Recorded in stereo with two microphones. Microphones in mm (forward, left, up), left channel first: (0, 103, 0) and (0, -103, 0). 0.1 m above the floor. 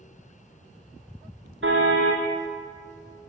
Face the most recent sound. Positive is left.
turn(degrees=-70)  # may be behind; listen again after turning